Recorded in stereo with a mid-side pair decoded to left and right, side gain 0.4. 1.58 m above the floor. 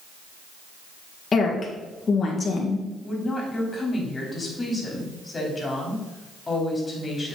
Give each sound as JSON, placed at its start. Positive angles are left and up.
{"t": 1.3, "sound": "a woman speaking", "azimuth_deg": 40, "distance_m": 2.0}
{"t": 3.0, "sound": "a woman speaking", "azimuth_deg": 30, "distance_m": 4.0}